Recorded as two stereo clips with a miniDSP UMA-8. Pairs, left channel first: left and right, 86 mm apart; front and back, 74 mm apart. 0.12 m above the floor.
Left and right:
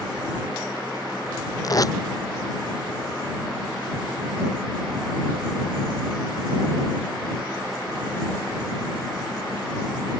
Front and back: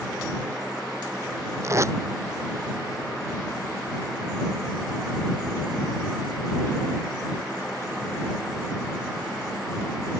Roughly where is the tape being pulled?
Behind left.